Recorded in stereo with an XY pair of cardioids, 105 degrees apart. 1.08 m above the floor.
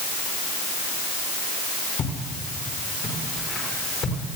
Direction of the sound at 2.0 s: 60° left.